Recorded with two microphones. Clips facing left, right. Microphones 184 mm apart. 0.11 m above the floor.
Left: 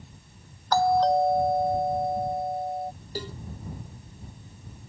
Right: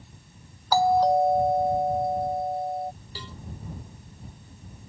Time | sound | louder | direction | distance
0.7 | a doorbell | right 1 dB | 10° right (ahead or behind) | ?
3.1 | a cowbell | left 8 dB | 40° left (ahead or behind) | ?